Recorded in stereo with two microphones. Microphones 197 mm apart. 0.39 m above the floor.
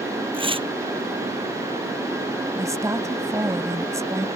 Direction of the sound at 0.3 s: 25° right (ahead or behind).